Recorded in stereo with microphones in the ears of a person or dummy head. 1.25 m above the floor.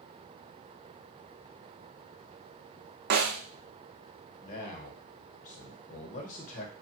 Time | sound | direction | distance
3.1 | a snare drum | 45° right (ahead or behind) | 0.5 m
4.4 | a man speaking | 40° left (ahead or behind) | 0.9 m